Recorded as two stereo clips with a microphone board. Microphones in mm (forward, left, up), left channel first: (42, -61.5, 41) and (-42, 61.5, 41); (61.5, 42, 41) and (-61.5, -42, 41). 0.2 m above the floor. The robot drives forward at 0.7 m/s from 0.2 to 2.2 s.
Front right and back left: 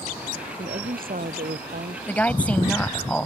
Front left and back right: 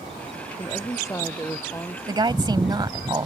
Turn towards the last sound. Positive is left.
turn(degrees=-130)